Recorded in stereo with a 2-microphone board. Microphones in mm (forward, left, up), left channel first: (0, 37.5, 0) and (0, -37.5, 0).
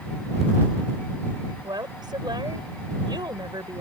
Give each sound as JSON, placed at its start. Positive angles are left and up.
{"t": 1.6, "sound": "a woman speaking", "side_deg": -80}